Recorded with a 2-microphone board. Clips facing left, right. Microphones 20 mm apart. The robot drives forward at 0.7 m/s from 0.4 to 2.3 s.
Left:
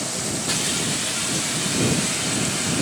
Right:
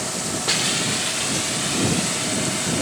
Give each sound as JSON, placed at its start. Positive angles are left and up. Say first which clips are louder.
{"t": 0.5, "sound": "a hiss", "louder": "right 4 dB", "side_deg": -35, "distance_m": 0.8}